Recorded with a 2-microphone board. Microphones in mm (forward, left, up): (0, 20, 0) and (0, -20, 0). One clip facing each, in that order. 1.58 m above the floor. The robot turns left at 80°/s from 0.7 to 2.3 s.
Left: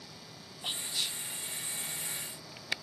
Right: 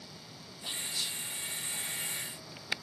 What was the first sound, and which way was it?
Whispering, 120° left.